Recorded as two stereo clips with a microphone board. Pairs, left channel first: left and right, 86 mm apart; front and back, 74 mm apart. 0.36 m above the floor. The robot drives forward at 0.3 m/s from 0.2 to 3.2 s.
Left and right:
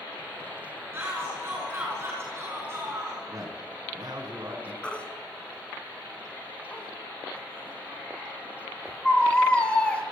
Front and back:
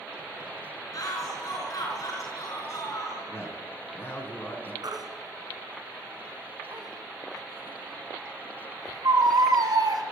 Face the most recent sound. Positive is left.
turn(degrees=165)